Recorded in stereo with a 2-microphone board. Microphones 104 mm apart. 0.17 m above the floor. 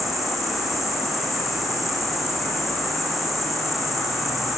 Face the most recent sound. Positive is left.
turn(degrees=0)  # may be behind; listen again after turning